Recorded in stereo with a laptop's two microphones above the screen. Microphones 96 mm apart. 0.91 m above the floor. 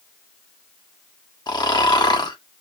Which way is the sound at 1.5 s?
45° left (ahead or behind).